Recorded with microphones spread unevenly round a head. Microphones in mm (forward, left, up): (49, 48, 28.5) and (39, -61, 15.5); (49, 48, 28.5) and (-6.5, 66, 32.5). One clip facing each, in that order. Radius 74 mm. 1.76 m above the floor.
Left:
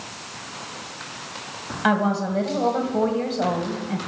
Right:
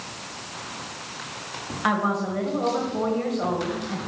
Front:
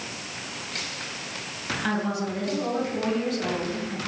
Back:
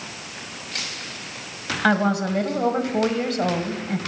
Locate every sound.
1.8 s a woman speaking: 155° left, 1.9 m